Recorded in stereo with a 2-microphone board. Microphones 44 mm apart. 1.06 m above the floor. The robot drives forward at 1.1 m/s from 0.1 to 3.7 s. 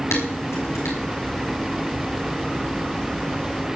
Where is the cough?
No cough in this recording.